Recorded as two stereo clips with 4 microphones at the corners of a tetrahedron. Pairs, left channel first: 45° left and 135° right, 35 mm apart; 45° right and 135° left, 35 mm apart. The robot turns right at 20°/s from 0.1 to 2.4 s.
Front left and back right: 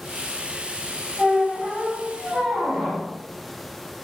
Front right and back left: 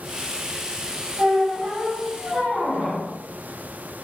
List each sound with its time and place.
1.2 s a squeak: 150° left, 1.1 m; by 3.0 s 175° left, 1.1 m